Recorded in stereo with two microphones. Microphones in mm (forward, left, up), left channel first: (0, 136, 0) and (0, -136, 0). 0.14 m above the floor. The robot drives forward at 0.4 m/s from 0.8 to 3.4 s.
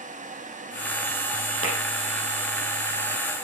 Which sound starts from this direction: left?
Tapping, at 1.6 s.